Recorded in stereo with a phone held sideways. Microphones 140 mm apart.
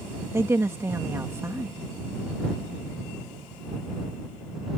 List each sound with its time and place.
0.3 s a woman speaking: 20° right (ahead or behind)